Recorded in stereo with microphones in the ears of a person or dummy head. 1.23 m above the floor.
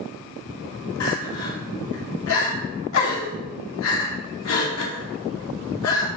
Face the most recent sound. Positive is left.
turn(degrees=80)